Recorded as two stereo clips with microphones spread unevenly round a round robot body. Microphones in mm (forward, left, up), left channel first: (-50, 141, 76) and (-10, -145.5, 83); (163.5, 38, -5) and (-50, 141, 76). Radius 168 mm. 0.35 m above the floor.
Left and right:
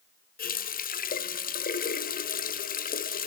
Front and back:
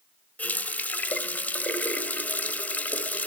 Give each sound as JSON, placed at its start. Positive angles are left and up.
{"t": 0.4, "sound": "a running tap", "azimuth_deg": 45, "distance_m": 1.2}